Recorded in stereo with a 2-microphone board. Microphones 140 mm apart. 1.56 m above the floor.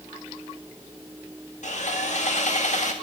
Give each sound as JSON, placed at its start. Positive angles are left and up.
{"t": 1.6, "sound": "sawing", "side_deg": 55, "distance_m": 2.0}